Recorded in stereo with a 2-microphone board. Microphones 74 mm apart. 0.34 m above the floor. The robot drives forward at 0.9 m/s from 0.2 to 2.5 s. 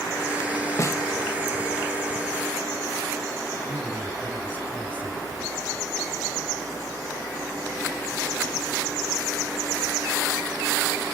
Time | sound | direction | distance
0.8 | a snare drum | 45° left (ahead or behind) | 1.0 m
3.7 | a man speaking | 20° right (ahead or behind) | 3 m